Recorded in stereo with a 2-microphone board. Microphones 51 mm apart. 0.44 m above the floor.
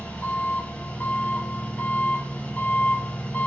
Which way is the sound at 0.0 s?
35° left (ahead or behind).